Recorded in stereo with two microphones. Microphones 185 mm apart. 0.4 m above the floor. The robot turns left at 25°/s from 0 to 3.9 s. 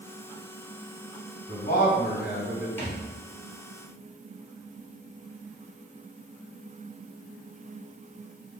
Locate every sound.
1.5 s a man speaking: 65° left (ahead or behind), 2 m; by 2.7 s 55° left (ahead or behind), 2 m
2.8 s a thud: 15° left (ahead or behind), 1.7 m; by 3.0 s 5° left (ahead or behind), 1.7 m